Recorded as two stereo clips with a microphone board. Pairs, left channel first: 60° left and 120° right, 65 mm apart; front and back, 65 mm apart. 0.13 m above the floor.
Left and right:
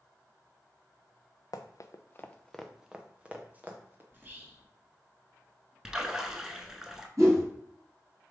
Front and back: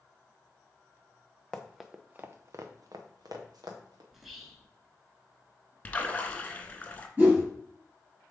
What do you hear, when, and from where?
1.5 s running footsteps: 75° left, 0.7 m; by 4.0 s straight behind, 1.7 m
4.1 s whispering: 95° right, 1.3 m
5.8 s a splash: 45° right, 0.6 m
7.2 s a whoosh: 125° right, 2.5 m